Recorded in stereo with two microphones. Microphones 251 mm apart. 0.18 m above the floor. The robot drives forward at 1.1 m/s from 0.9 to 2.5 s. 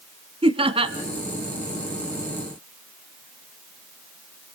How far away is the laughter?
About 1.3 m.